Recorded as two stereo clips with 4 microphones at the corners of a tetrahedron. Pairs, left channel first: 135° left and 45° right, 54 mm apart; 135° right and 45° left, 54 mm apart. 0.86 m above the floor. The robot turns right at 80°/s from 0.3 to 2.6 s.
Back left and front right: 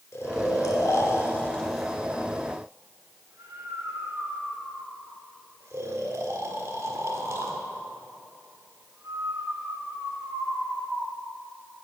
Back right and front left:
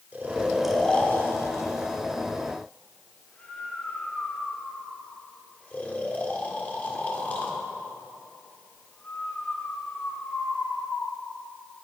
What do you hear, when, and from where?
0.1 s snoring: 105° left, 1.5 m; by 11.1 s 75° right, 1.5 m